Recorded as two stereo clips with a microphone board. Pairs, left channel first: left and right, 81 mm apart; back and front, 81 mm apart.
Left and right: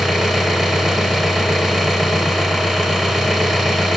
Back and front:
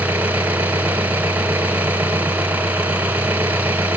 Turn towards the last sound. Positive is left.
turn(degrees=-10)